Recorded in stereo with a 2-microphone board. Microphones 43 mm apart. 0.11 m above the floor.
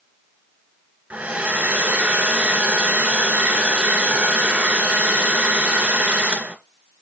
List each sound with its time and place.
1.1 s a hair dryer: 35° right (ahead or behind), 1.5 m